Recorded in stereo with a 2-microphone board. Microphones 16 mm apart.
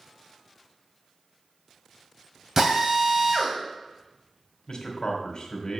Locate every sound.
2.6 s a drill: 30° right (ahead or behind), 2 m
4.7 s a man speaking: 50° left (ahead or behind), 2.5 m